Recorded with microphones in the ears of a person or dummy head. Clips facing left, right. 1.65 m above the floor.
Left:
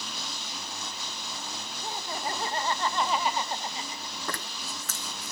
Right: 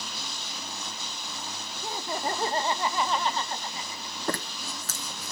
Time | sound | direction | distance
1.8 | laughter | 60° right (ahead or behind) | 1.2 m
4.3 | a zipper | 30° right (ahead or behind) | 0.8 m